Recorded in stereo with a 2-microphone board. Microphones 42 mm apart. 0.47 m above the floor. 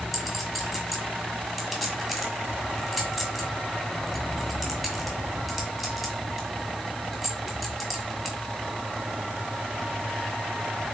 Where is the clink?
Centre (ahead or behind), 2 m.